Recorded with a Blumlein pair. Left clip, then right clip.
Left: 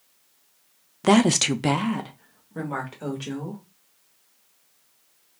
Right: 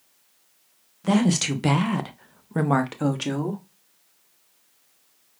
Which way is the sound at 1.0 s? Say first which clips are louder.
Left 4 dB; 30° left.